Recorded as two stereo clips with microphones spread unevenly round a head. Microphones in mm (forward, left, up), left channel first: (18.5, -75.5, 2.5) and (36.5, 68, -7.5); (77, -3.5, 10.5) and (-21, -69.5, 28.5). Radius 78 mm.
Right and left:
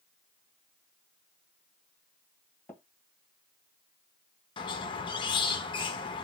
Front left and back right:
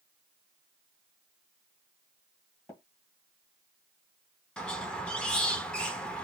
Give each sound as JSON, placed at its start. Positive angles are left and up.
{"t": 2.7, "sound": "tapping", "azimuth_deg": -30, "distance_m": 1.5}
{"t": 4.6, "sound": "a squeak", "azimuth_deg": -55, "distance_m": 0.7}